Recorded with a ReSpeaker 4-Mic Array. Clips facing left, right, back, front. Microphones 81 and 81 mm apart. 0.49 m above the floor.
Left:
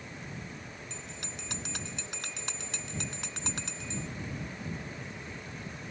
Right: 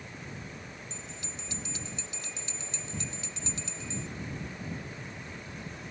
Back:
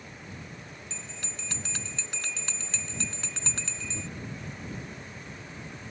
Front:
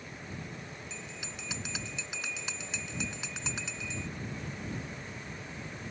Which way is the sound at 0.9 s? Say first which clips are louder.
Even, even; 80° left.